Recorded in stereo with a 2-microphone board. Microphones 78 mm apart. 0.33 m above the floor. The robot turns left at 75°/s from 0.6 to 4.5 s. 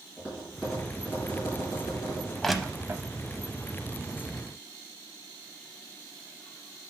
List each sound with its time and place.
0.2 s tapping: 15° right (ahead or behind), 4.5 m; by 2.3 s 60° left (ahead or behind), 4.5 m
2.4 s crushing: 5° left (ahead or behind), 0.6 m; by 3.0 s 35° right (ahead or behind), 0.6 m